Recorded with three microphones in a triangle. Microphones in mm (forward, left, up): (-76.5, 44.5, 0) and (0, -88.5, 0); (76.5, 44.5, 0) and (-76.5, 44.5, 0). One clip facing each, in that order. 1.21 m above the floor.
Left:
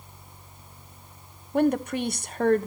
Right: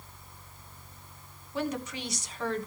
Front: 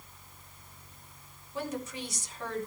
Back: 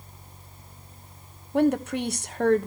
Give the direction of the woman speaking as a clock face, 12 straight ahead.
7 o'clock.